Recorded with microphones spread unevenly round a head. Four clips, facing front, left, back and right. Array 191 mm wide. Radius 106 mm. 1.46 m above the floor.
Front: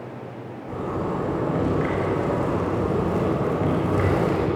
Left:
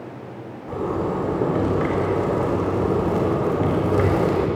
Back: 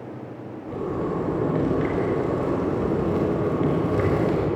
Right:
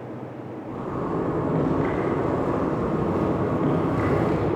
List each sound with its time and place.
0.7 s a zipper: 115° left, 4 m